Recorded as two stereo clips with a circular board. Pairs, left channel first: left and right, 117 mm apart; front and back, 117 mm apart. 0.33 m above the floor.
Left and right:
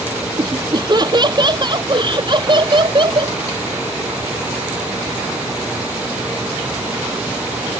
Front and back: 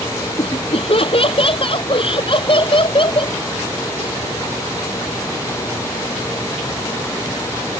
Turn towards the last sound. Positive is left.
turn(degrees=-45)